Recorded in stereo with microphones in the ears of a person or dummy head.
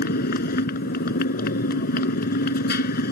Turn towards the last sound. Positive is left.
turn(degrees=50)  # may be behind; listen again after turning